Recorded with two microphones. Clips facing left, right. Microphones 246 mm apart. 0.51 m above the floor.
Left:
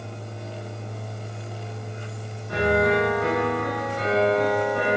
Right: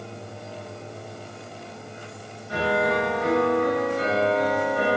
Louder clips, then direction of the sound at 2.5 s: Left 3 dB; 65° left (ahead or behind).